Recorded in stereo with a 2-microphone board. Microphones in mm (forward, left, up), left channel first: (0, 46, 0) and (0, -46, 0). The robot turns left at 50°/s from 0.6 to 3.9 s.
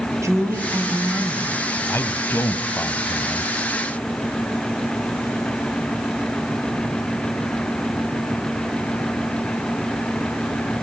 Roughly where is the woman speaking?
Behind right.